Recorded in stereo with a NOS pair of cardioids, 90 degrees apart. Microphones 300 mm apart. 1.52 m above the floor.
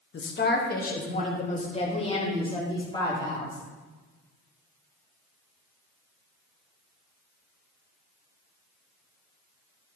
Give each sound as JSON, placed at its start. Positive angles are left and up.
{"t": 0.1, "sound": "a woman speaking", "azimuth_deg": 40, "distance_m": 1.4}